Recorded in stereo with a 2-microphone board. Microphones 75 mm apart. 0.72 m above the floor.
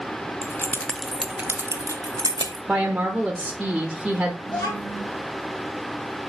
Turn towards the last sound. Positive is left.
turn(degrees=55)  # may be behind; listen again after turning